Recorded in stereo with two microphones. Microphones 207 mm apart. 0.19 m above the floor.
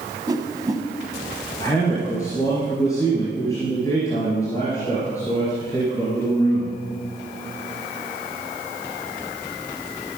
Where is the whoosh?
20° right (ahead or behind), 1.2 m.